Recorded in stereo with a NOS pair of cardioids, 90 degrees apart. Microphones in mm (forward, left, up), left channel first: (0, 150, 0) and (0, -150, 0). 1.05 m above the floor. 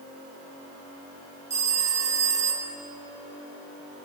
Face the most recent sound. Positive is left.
turn(degrees=-20)